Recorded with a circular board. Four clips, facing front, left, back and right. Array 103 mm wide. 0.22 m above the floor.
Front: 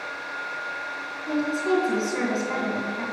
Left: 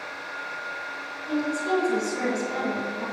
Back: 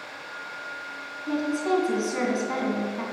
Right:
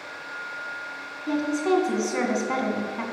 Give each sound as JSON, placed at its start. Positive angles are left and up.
{"t": 1.3, "sound": "a woman speaking", "azimuth_deg": -105, "distance_m": 2.5}